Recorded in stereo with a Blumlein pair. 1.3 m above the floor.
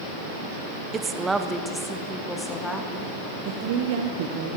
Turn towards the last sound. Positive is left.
turn(degrees=-50)